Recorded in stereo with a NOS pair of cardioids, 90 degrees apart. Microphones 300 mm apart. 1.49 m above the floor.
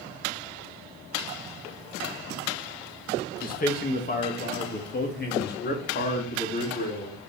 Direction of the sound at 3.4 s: 30° left.